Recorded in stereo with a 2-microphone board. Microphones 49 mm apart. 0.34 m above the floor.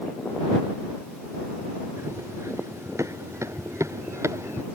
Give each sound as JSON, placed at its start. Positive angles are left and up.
{"t": 2.0, "sound": "running footsteps", "side_deg": -80}